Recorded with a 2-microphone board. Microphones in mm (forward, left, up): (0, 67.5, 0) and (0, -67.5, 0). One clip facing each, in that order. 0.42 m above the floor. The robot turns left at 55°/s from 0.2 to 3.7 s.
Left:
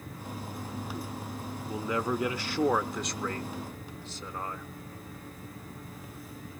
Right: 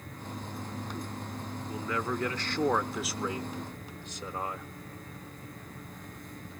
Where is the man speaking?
20° left (ahead or behind), 0.7 m; by 4.7 s 15° right (ahead or behind), 0.7 m.